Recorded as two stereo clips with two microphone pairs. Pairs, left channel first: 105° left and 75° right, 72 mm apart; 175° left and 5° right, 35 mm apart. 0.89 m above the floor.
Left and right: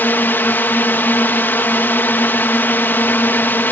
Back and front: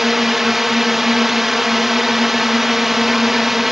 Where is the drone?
75° left.